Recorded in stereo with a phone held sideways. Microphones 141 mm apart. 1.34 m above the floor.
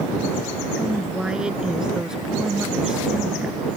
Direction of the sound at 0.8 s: 5° right (ahead or behind).